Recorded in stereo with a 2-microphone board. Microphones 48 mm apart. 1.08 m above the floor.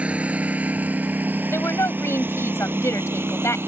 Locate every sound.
0.0 s a lawn mower: 30° right (ahead or behind); by 3.7 s 60° right (ahead or behind)
1.5 s a woman speaking: 75° left (ahead or behind)